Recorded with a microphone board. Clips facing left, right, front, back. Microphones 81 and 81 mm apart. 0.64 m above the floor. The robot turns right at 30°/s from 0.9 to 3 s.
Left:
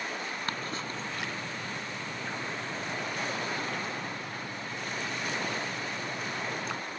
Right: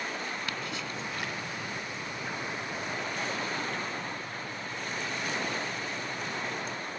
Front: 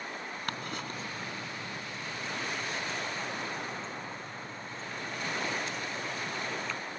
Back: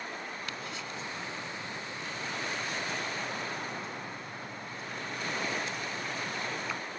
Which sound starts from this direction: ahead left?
Ticking, at 0.5 s.